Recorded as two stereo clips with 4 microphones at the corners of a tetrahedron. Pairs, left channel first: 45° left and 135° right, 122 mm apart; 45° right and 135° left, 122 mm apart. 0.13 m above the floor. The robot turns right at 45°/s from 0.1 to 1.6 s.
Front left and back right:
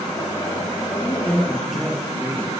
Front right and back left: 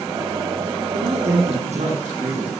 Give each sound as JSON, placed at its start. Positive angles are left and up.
{"t": 0.9, "sound": "a man speaking", "azimuth_deg": 105, "distance_m": 3.5}